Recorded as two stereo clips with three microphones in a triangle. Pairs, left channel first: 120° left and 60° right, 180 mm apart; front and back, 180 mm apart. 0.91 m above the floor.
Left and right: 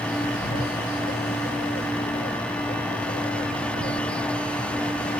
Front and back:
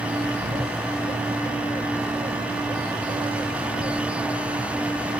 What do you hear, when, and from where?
0.2 s a bird: 120° left, 0.7 m